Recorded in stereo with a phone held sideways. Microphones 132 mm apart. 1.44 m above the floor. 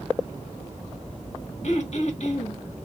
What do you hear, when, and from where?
1.6 s throat clearing: 60° left (ahead or behind), 1.5 m